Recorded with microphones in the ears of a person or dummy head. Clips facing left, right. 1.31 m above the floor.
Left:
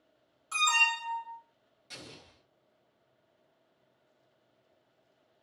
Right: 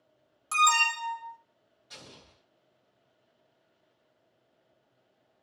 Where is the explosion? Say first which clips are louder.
Left 2 dB; 35° left (ahead or behind), 1.0 m.